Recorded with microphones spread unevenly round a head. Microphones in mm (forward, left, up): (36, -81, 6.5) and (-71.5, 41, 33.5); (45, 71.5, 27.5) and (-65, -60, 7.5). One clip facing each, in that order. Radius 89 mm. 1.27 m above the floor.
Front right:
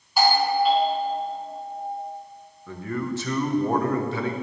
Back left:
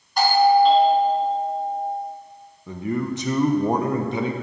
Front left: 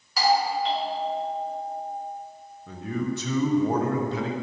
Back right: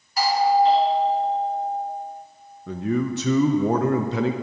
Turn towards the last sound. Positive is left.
turn(degrees=-155)